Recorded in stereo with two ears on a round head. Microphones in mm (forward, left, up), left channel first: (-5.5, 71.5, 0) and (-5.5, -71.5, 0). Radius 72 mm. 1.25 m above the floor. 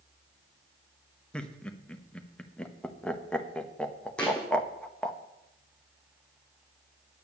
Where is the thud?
5° left (ahead or behind), 3 m.